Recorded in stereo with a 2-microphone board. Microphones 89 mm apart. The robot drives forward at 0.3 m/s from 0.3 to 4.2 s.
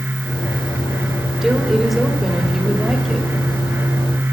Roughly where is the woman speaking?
Centre.